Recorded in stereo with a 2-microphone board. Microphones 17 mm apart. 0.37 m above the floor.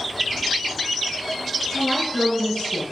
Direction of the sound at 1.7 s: 80° left.